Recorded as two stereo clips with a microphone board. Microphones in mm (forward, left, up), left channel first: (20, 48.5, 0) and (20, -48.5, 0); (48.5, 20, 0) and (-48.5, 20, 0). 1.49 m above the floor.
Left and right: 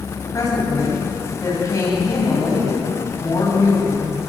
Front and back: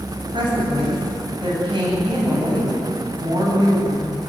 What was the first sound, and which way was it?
A woman speaking, 145° left.